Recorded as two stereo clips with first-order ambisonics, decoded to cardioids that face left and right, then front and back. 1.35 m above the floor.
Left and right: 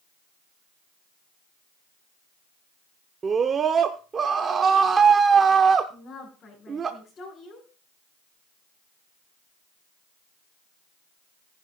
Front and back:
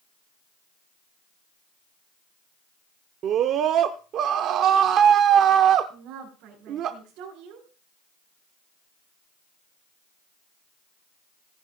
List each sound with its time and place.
3.2 s a scream: 150° right, 0.6 m
5.9 s a woman speaking: 155° left, 5 m